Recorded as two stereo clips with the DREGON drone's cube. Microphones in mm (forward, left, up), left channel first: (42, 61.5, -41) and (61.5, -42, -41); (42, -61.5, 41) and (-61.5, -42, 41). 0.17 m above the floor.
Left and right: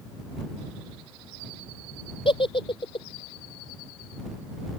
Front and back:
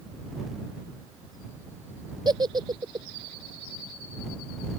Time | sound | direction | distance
2.2 | a giggle | 125° left | ?